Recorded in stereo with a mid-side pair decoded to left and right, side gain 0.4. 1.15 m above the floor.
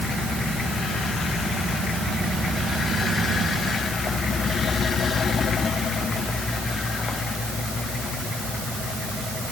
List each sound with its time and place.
Only background noise.